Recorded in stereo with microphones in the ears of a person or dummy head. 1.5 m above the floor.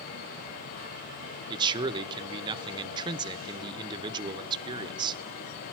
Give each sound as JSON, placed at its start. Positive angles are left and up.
{"t": 1.5, "sound": "a man speaking", "side_deg": -25, "distance_m": 1.1}